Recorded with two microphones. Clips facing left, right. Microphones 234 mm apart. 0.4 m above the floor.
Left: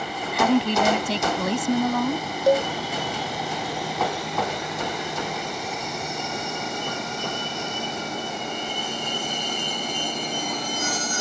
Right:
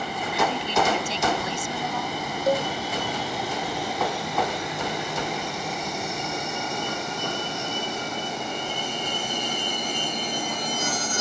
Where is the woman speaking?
60° left (ahead or behind).